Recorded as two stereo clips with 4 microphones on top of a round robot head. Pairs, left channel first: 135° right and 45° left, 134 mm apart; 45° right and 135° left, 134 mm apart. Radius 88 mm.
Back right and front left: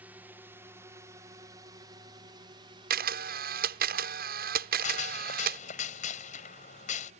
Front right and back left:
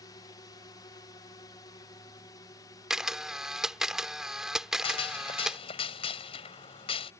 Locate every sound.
0.0 s a drone: 20° right; by 7.2 s 25° left
2.9 s a camera shutter: 50° left
4.8 s a gunshot: 95° right